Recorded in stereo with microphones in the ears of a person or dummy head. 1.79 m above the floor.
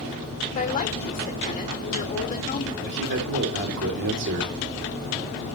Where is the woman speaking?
40° left (ahead or behind), 1.7 m.